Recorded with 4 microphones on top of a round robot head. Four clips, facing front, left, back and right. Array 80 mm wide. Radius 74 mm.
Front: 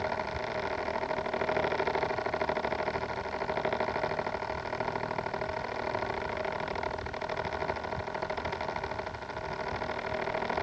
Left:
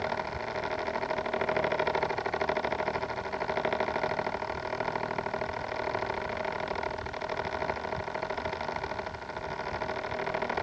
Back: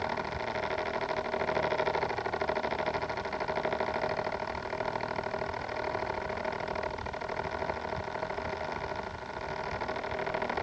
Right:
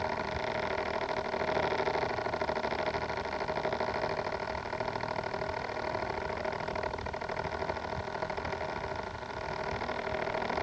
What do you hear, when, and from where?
Only background noise.